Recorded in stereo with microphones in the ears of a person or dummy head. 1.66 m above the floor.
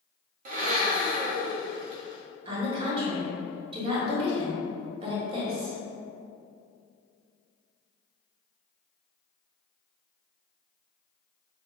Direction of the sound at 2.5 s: 35° right (ahead or behind).